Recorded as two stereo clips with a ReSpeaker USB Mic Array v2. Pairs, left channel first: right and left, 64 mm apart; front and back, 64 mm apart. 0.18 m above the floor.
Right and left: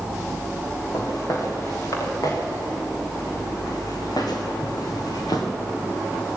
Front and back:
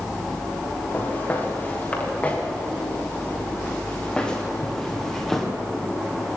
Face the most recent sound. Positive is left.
turn(degrees=-85)